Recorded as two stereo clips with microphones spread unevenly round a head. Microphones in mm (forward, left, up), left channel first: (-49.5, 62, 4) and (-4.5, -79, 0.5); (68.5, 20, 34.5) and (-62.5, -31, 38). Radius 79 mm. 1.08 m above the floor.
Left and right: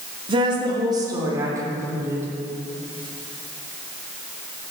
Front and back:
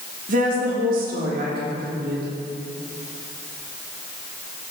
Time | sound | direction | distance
0.3 | a woman speaking | 125° right | 2.5 m